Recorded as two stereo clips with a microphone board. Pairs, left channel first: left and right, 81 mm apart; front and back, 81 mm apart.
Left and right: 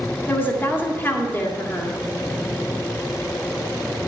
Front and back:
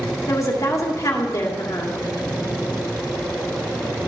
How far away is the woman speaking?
About 1.8 m.